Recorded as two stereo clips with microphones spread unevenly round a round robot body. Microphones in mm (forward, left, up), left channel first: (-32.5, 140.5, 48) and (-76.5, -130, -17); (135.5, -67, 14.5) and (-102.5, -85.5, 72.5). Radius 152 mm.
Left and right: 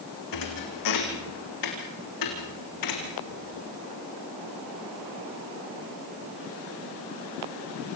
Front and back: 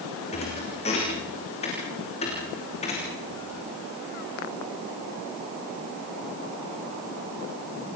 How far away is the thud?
About 5 m.